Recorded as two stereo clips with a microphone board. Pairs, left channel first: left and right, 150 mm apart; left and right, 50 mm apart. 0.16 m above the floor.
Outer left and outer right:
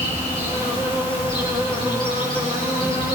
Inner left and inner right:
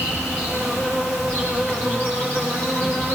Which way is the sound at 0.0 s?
30° left (ahead or behind).